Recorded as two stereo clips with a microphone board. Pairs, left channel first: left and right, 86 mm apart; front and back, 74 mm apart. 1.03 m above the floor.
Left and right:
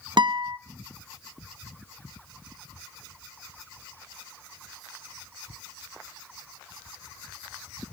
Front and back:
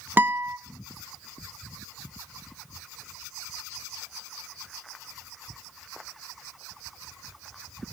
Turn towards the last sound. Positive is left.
turn(degrees=-115)